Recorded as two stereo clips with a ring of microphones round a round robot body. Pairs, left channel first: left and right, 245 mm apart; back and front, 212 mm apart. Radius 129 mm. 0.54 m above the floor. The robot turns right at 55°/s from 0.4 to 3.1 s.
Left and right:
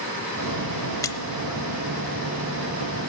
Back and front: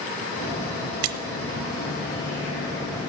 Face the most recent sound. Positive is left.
turn(degrees=125)